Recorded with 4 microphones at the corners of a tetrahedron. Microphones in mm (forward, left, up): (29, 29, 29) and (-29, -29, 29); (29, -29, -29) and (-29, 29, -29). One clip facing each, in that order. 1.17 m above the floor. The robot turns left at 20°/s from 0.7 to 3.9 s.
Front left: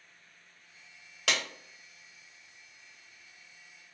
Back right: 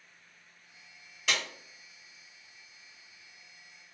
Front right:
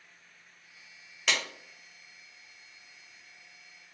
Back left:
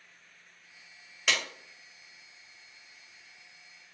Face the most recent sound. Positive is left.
turn(degrees=-5)